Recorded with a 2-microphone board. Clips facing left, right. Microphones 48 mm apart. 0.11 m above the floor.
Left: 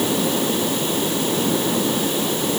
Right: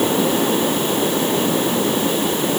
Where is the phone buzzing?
No phone buzzing in this recording.